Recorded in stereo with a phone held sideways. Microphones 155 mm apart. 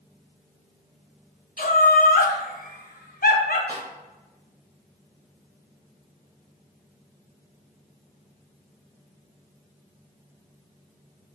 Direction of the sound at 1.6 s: 75° left (ahead or behind).